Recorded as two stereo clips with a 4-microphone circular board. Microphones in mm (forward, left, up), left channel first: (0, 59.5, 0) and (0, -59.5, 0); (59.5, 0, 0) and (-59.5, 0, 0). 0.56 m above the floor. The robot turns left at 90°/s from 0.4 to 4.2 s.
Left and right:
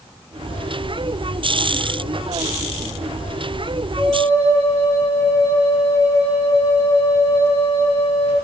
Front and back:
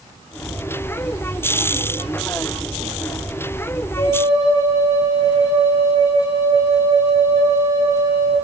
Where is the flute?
30° right, 8 m; by 8.3 s 55° right, 8 m.